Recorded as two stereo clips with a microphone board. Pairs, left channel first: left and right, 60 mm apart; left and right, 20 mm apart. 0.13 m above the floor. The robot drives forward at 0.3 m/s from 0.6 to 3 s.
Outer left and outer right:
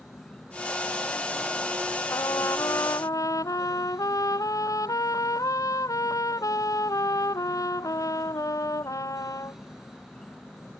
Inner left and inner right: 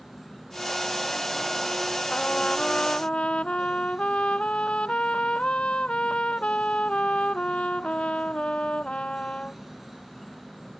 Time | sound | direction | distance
0.0 | an insect | 15° left (ahead or behind) | ?
2.1 | a trumpet | 75° left (ahead or behind) | ?